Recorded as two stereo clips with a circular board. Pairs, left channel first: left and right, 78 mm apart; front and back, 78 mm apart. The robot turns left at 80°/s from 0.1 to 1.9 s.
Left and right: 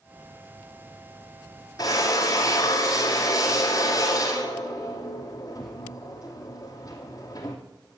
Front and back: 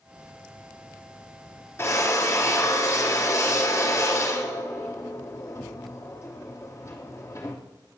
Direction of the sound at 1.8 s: 55° left.